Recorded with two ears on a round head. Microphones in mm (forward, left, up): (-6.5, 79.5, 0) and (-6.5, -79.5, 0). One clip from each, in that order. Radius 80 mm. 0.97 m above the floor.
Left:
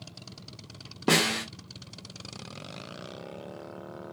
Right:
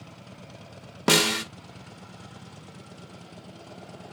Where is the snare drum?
40° right (ahead or behind), 0.5 m.